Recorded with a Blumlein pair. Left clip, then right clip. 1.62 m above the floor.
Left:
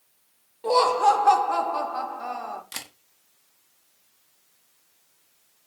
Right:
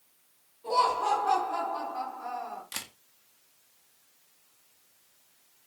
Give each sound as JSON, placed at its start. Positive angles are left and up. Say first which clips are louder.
{"t": 0.6, "sound": "laughter", "louder": "left 6 dB", "azimuth_deg": 35, "distance_m": 1.1}
{"t": 2.7, "sound": "a camera shutter", "louder": "left 2 dB", "azimuth_deg": 5, "distance_m": 0.7}